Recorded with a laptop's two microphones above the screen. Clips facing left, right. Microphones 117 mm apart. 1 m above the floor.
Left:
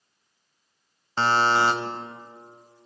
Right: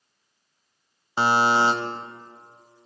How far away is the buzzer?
About 0.9 m.